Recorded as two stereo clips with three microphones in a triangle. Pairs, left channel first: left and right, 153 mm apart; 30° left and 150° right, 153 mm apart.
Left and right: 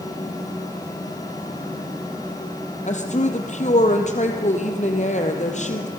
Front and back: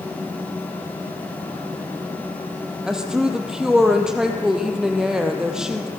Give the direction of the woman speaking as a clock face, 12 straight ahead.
8 o'clock.